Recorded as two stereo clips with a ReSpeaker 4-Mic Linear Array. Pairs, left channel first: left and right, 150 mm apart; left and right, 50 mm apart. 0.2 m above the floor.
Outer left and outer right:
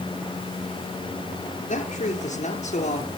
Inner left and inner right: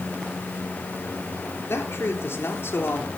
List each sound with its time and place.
1.7 s a man speaking: 50° left (ahead or behind), 4 m